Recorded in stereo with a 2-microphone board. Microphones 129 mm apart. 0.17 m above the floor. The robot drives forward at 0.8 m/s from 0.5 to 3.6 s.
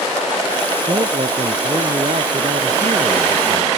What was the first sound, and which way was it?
A man speaking, 50° right (ahead or behind).